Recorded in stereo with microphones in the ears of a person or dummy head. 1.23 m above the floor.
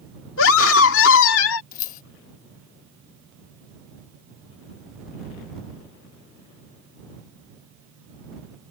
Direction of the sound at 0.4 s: 75° left (ahead or behind).